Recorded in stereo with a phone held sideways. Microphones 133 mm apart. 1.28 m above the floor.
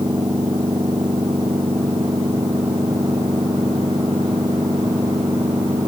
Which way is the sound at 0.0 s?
35° right (ahead or behind).